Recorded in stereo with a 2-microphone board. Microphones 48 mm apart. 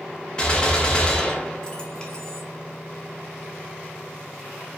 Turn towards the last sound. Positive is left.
turn(degrees=20)  # may be behind; listen again after turning